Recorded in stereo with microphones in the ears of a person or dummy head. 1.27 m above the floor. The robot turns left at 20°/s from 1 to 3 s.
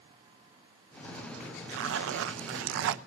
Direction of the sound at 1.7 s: 80° right.